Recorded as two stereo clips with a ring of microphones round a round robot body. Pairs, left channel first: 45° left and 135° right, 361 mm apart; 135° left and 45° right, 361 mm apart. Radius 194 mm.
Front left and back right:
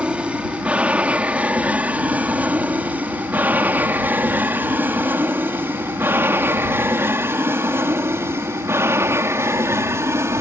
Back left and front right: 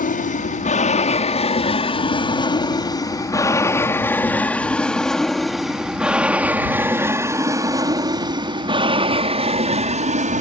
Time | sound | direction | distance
0.0 | an aircraft | 145° left | ?